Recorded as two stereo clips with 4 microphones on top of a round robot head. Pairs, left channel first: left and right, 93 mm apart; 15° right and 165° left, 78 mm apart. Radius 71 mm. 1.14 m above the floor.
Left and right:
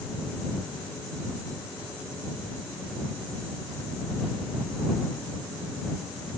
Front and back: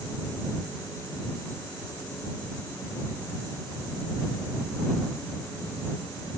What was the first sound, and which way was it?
Only background noise.